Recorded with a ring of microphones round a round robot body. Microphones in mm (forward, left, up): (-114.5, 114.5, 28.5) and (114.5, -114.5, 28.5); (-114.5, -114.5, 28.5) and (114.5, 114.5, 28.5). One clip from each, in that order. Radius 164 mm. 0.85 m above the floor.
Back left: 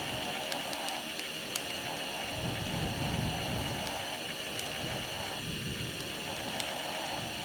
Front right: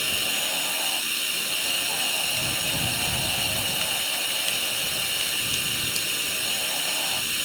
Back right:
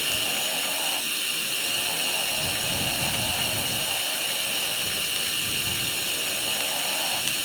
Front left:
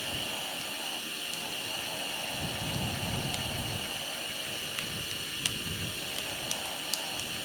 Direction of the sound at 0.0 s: 75° right.